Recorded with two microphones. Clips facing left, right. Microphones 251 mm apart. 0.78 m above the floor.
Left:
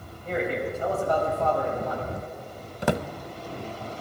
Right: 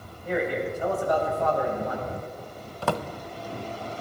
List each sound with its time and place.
0.2 s a man speaking: 10° right (ahead or behind), 4.5 m; by 2.1 s 20° right (ahead or behind), 5.5 m
2.8 s a drawer: 20° left (ahead or behind), 0.5 m